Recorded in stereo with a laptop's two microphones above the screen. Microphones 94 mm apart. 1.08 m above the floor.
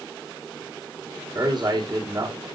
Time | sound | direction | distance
1.4 | a man speaking | 50° right (ahead or behind) | 2.5 m